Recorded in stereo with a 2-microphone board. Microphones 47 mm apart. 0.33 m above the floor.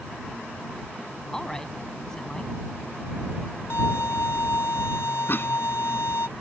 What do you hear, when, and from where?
1.3 s a woman speaking: 10° left (ahead or behind)
3.7 s a violin: 75° left (ahead or behind)
5.3 s a cough: 50° left (ahead or behind)